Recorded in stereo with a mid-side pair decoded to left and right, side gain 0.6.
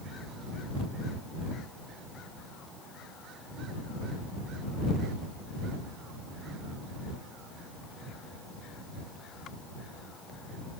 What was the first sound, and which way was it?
Only background noise.